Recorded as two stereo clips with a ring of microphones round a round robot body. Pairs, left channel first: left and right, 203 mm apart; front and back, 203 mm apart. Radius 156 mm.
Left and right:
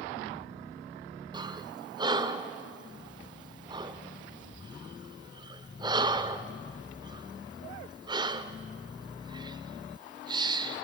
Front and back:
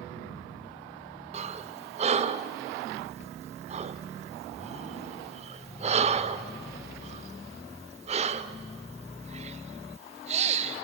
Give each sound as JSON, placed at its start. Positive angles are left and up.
{"t": 1.3, "sound": "breathing", "azimuth_deg": -145, "distance_m": 0.7}